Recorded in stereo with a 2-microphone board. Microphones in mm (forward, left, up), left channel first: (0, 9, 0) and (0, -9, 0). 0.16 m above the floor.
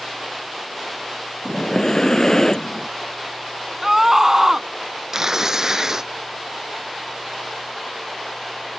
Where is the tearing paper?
30° right (ahead or behind).